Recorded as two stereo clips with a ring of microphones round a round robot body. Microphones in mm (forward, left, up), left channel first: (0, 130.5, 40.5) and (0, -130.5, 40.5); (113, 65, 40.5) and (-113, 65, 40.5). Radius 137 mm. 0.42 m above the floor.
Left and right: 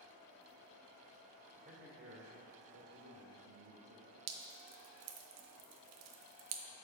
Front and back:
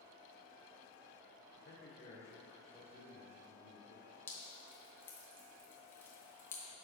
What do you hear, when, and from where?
1.6 s a man speaking: 35° right, 1.3 m; by 4.2 s 125° right, 2 m
4.3 s dripping: 80° right, 0.5 m